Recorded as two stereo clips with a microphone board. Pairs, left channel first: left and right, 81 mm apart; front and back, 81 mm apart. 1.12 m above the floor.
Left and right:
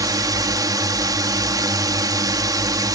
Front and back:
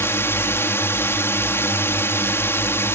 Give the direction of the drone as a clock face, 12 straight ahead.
2 o'clock.